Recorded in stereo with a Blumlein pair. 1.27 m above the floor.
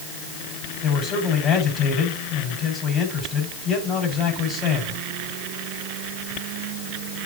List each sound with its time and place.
0.8 s a man speaking: 30° left, 7 m